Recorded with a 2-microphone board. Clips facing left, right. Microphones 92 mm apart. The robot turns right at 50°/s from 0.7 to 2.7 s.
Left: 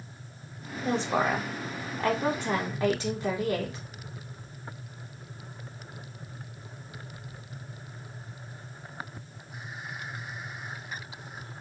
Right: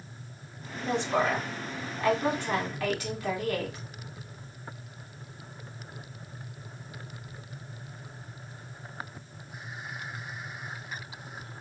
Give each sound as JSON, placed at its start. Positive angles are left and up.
{"t": 0.8, "sound": "a woman speaking", "azimuth_deg": 50, "distance_m": 1.3}